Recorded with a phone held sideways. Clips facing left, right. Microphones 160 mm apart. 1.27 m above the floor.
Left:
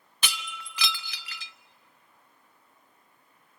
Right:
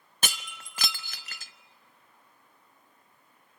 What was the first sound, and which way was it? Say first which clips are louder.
Breaking glass: even; 45° right (ahead or behind).